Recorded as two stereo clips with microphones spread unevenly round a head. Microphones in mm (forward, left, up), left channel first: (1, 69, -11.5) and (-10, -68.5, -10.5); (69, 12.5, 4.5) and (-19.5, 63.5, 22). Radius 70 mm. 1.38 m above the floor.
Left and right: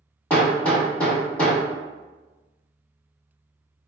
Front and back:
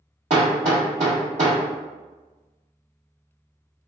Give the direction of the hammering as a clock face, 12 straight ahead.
7 o'clock.